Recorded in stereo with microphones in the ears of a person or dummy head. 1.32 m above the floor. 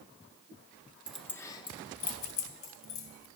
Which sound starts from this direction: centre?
Keys jangling, at 1.1 s.